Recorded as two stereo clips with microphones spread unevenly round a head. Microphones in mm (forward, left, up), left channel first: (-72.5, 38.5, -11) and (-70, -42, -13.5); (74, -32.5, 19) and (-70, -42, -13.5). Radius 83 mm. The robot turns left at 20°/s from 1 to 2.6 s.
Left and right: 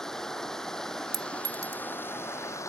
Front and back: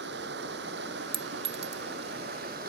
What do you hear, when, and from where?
0.0 s running water: 175° left; by 2.7 s 145° left
1.1 s a clink: 125° right; by 1.8 s 140° right